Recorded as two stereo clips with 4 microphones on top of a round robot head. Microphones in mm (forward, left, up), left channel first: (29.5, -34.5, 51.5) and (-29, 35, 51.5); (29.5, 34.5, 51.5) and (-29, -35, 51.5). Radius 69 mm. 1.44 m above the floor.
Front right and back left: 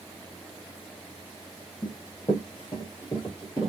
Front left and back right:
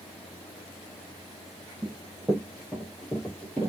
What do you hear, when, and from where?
1.8 s running footsteps: 75° right, 1.7 m; by 3.7 s 10° right, 1.7 m